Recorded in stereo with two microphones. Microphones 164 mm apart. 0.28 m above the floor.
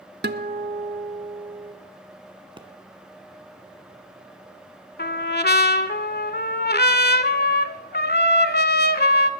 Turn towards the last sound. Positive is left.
turn(degrees=80)